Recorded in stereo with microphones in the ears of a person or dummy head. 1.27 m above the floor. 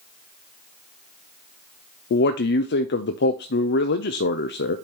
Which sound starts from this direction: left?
A man speaking, at 2.1 s.